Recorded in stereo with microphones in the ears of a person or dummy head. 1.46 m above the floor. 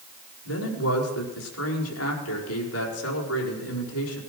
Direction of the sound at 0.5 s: 85° left.